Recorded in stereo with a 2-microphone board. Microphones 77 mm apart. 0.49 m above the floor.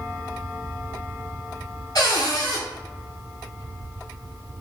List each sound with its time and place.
1.9 s a cupboard door: 65° left (ahead or behind), 1.6 m